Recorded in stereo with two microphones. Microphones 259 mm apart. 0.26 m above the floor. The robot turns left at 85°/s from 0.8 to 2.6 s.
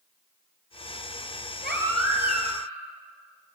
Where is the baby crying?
35° right, 2.5 m; by 2.7 s 115° right, 2.5 m.